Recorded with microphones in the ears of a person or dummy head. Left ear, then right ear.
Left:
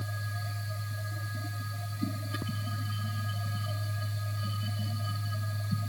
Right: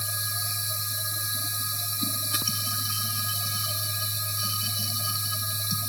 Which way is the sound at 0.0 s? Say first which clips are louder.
Right 9 dB; 60° right (ahead or behind).